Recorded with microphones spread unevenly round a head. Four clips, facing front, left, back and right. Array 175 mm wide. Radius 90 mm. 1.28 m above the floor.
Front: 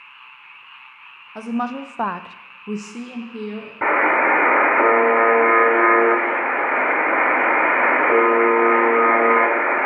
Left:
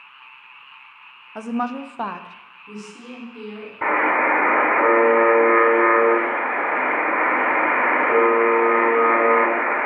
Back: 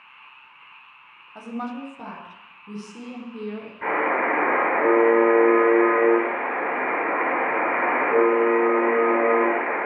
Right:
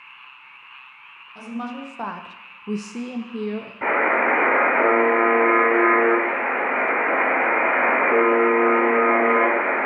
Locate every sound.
1.4 s a woman speaking: 45° left, 0.8 m; by 3.7 s 80° right, 1.1 m
3.8 s a buzzer: 5° left, 2 m